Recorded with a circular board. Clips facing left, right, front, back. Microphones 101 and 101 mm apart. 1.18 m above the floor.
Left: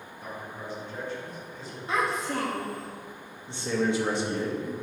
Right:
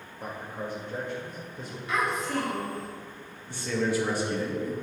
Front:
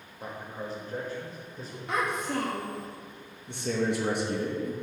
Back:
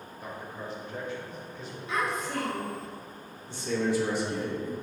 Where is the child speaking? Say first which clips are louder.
Even, front 1 dB; 35° left, 1.2 m.